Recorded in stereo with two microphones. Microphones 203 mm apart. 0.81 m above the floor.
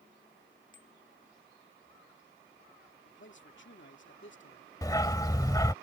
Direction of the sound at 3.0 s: 65° left (ahead or behind).